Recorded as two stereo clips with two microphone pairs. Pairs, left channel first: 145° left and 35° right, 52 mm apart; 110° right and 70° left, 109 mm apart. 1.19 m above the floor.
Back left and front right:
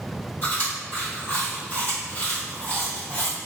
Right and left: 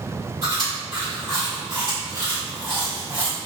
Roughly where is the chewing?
Left.